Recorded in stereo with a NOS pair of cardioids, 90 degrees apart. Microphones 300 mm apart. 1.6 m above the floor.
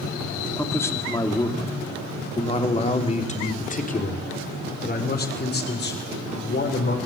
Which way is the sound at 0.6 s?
5° left.